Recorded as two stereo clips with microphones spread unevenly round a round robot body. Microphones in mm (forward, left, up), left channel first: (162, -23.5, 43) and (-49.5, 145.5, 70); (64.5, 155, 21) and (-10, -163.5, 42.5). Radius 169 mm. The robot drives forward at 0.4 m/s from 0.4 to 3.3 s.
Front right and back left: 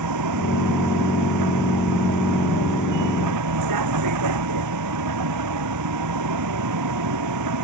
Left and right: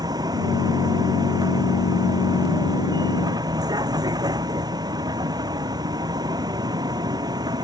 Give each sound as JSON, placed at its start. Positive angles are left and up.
{"t": 0.0, "sound": "a vehicle", "azimuth_deg": 175}